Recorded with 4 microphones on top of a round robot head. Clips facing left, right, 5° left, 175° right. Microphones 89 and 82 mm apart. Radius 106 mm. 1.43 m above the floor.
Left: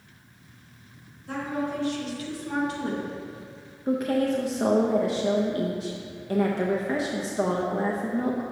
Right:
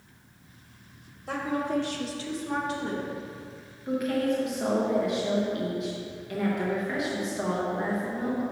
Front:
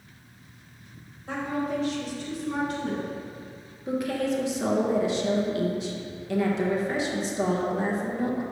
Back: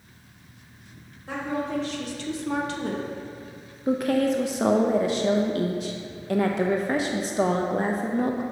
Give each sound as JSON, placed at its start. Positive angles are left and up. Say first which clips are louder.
{"t": 1.3, "sound": "a woman speaking", "louder": "right 1 dB, even", "azimuth_deg": -90, "distance_m": 1.4}
{"t": 3.9, "sound": "a woman speaking", "louder": "left 2 dB, back 5 dB", "azimuth_deg": 145, "distance_m": 0.6}